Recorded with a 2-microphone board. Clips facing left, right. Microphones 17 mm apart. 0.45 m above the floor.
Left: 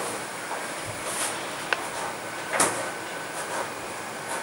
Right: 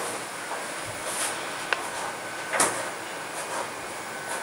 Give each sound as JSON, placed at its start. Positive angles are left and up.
{"t": 0.8, "sound": "a child speaking", "side_deg": 70, "distance_m": 1.7}